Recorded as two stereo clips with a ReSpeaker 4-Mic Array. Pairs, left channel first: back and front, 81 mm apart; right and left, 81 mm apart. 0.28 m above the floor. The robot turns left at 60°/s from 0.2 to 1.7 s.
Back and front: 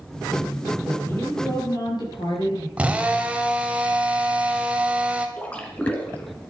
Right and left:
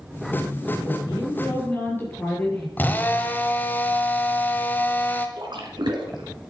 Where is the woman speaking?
105° right, 6 m; by 2.7 s 155° right, 6 m.